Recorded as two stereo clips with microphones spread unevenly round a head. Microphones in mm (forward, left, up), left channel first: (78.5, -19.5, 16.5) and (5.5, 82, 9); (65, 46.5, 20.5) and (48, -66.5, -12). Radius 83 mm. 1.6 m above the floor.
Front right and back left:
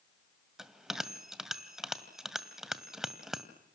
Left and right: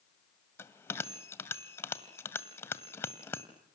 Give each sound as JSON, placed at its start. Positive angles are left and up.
{"t": 0.6, "sound": "a bell", "azimuth_deg": 40, "distance_m": 1.9}